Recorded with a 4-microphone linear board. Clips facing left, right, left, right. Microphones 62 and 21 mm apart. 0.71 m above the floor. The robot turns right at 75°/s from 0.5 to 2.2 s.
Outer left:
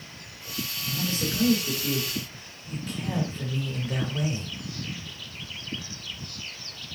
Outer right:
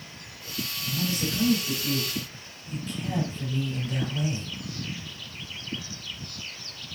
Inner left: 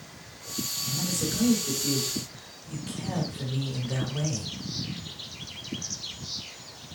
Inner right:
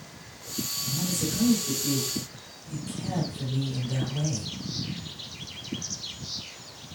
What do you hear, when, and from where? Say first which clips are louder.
0.8 s a man speaking: even, even; 10° left, 2.5 m; by 4.5 s 110° left, 2.5 m